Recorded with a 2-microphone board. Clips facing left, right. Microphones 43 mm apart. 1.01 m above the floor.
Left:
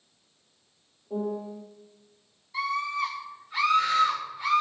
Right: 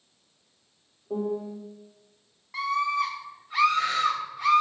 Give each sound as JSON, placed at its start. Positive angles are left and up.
{"t": 1.1, "sound": "a piano", "side_deg": -30, "distance_m": 0.7}
{"t": 2.5, "sound": "a scream", "side_deg": -65, "distance_m": 1.4}